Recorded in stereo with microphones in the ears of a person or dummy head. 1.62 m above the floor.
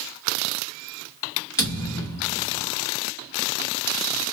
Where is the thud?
20° left (ahead or behind), 1.2 m.